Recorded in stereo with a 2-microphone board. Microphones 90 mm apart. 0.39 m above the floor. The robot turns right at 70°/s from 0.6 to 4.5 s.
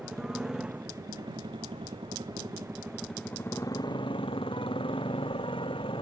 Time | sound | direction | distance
0.0 | a motorcycle | 175° right | ?